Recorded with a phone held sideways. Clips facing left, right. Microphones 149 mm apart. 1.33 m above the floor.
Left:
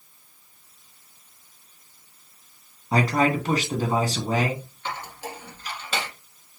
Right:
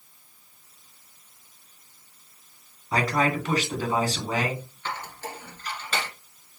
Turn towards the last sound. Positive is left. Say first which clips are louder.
# left 1 dB
turn(degrees=10)  # may be behind; listen again after turning